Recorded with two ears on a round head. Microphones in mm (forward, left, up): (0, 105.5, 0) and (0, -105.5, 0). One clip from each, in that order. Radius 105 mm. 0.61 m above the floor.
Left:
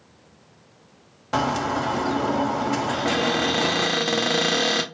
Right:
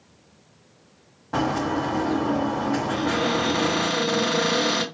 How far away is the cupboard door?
About 1.8 m.